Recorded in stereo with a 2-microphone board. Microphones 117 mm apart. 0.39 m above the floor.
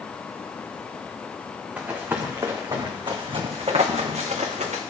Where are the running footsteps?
15° right (ahead or behind), 2.5 m; by 4.8 s 75° right (ahead or behind), 2.5 m.